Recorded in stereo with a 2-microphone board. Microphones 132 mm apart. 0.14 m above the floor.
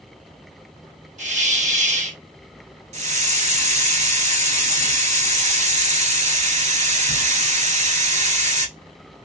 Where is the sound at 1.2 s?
70° right (ahead or behind), 0.9 m.